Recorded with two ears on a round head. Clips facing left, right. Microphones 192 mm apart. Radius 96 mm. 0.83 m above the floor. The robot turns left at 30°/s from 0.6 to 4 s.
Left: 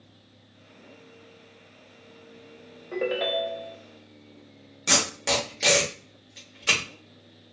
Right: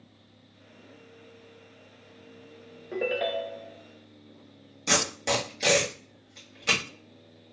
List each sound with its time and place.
2.9 s a ringtone: 10° right (ahead or behind), 0.6 m; by 3.8 s 15° left (ahead or behind), 0.6 m
4.9 s tape being pulled: 5° left (ahead or behind), 1.1 m